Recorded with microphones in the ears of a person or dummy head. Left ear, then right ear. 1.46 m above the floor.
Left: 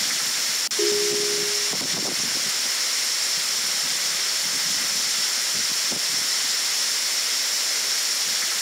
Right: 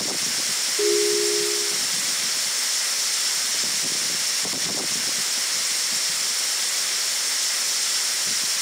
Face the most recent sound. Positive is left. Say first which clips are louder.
# right 2 dB
turn(degrees=0)  # may be behind; listen again after turning